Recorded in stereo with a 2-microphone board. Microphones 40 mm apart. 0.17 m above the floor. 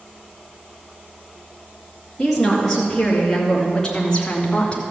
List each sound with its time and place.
2.2 s a woman speaking: 5° left (ahead or behind), 3 m; by 4.8 s 30° left (ahead or behind), 1.7 m